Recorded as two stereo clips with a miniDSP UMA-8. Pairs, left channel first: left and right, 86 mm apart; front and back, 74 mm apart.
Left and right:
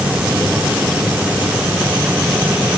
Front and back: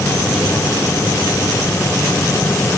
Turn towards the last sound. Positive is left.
No sound to turn to.